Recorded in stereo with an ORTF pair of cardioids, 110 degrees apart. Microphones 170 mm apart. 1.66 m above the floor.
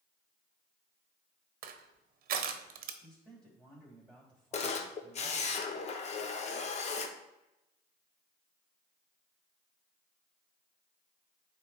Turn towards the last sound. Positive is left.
turn(degrees=45)